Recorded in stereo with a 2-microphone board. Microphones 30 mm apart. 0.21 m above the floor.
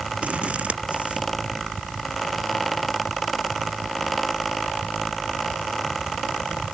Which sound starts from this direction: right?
Scissors, at 0.2 s.